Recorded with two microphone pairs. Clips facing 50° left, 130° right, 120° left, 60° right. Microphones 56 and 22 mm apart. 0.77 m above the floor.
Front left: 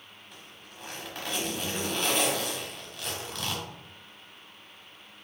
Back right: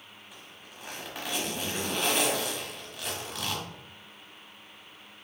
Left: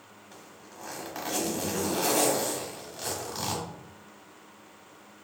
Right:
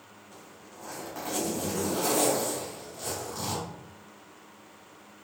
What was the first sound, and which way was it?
A zipper, 145° left.